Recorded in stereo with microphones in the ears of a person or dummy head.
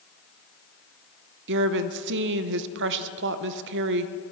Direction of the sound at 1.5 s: 65° right (ahead or behind).